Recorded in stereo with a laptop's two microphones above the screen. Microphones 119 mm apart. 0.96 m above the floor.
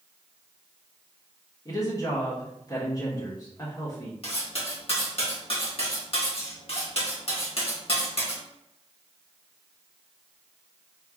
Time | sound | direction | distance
1.6 | a woman speaking | 35° left (ahead or behind) | 1.6 m
4.2 | cutlery clinking | 55° left (ahead or behind) | 1.2 m